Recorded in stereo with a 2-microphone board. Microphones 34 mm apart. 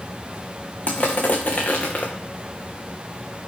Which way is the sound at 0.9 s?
40° left (ahead or behind).